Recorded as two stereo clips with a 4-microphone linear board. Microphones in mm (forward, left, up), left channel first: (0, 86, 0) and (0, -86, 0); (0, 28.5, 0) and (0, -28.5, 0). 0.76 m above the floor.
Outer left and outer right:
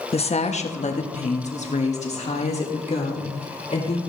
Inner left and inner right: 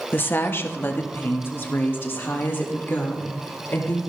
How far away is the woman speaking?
About 0.9 m.